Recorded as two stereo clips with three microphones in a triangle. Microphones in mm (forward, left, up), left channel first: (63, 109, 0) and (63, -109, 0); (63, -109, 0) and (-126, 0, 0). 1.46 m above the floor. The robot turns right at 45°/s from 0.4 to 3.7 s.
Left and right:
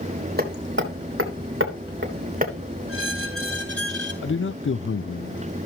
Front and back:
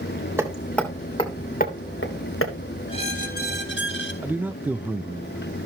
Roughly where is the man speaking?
Left.